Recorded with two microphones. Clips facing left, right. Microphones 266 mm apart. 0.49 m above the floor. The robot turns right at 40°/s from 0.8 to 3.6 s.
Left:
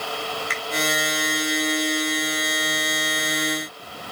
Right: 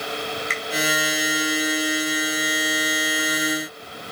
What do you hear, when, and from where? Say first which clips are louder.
0.5 s a finger snap: right 1 dB; 30° right (ahead or behind), 2 m